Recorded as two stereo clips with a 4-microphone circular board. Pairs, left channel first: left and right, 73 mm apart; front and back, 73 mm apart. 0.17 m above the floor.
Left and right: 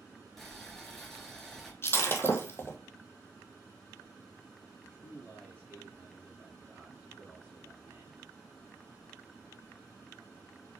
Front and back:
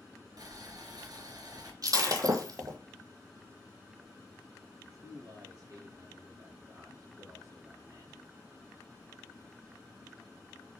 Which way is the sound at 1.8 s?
145° left.